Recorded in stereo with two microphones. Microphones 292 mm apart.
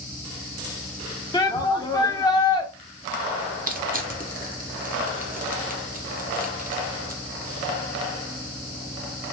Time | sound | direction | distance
1.3 | a shout | 15° left (ahead or behind) | 0.7 m
3.7 | crushing | 30° right (ahead or behind) | 0.6 m